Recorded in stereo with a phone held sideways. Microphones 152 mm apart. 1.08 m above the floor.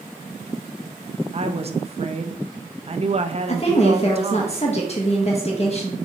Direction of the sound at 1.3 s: 40° right (ahead or behind).